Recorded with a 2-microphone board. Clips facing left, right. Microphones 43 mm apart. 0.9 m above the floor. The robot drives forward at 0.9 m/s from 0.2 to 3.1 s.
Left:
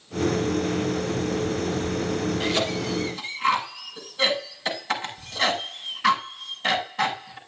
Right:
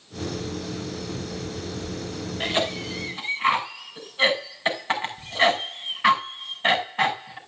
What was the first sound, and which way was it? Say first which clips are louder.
A cough: left 1 dB; 25° right (ahead or behind).